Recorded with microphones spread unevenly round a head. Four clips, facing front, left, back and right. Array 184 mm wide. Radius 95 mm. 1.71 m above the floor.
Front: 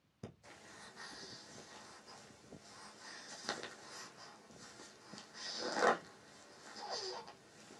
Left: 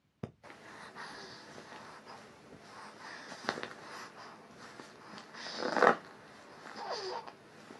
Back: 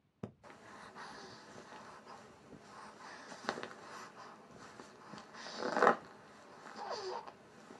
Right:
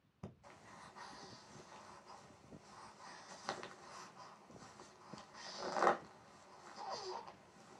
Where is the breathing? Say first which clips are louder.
Left 8 dB, back 4 dB; 95° left, 0.6 m.